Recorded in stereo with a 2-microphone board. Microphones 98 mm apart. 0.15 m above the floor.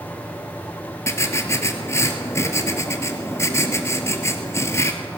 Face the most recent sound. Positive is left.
turn(degrees=30)  # may be behind; listen again after turning